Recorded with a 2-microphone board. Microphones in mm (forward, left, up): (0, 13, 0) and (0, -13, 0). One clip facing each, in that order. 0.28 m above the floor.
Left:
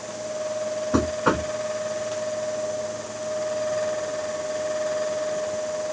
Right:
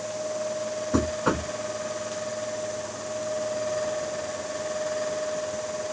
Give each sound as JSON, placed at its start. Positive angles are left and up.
{"t": 0.9, "sound": "knocking", "side_deg": 20}